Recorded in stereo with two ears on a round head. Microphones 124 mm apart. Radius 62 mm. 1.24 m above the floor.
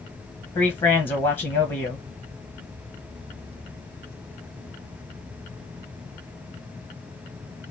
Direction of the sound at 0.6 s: 40° left (ahead or behind).